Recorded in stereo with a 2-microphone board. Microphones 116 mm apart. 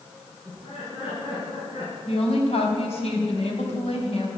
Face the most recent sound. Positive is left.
turn(degrees=65)  # may be behind; listen again after turning